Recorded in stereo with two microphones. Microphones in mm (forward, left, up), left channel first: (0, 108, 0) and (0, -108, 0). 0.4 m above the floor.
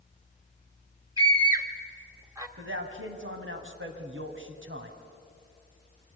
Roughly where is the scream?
Centre.